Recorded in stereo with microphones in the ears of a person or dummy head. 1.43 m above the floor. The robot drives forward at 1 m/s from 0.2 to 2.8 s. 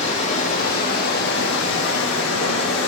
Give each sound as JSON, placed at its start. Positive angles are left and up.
{"t": 0.0, "sound": "running water", "side_deg": 45, "distance_m": 2.5}